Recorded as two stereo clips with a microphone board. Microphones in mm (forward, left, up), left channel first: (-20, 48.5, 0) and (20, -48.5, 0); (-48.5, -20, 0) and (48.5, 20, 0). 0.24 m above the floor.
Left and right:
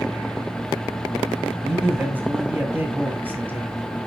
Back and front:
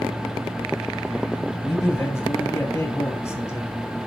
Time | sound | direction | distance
1.6 | a man speaking | 125° right | 1.5 m